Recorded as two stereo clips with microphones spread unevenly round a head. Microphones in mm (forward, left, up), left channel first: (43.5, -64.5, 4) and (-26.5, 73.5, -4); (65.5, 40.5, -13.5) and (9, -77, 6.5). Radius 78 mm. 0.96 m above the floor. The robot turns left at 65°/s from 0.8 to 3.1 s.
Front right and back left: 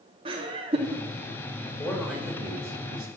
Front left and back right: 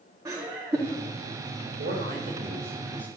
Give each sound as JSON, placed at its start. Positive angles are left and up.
{"t": 0.2, "sound": "laughter", "azimuth_deg": 170, "distance_m": 2.0}
{"t": 1.8, "sound": "a man speaking", "azimuth_deg": -135, "distance_m": 4.0}